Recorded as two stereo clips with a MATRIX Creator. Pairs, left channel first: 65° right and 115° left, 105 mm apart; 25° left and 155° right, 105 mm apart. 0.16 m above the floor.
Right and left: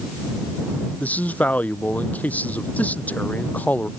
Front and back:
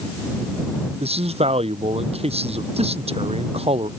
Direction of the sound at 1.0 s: 145° right.